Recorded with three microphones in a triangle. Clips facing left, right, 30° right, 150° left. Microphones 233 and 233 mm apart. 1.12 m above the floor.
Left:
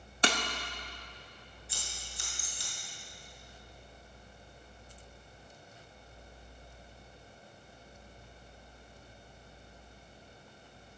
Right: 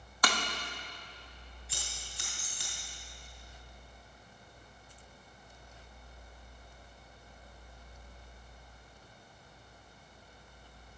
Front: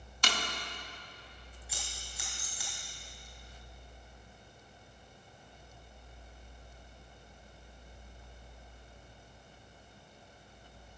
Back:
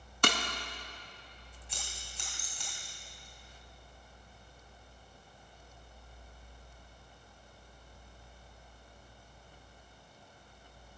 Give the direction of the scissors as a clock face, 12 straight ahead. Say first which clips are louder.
Right 1 dB, even; 4 o'clock.